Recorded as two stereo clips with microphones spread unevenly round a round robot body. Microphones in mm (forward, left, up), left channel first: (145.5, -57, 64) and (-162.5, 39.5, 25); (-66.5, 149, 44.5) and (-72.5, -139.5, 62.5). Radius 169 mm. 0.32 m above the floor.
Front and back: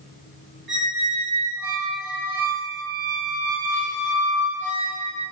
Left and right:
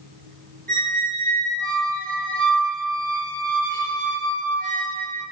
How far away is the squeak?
About 1.2 m.